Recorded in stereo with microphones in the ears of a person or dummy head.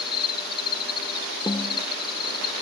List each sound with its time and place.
0.0 s an insect: 35° left (ahead or behind)
1.5 s a snare drum: 15° left (ahead or behind)